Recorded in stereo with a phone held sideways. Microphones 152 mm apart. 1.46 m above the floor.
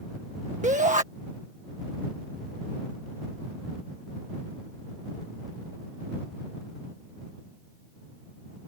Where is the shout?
55° right (ahead or behind).